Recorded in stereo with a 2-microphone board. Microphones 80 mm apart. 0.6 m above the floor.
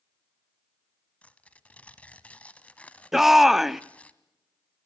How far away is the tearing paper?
About 1.1 m.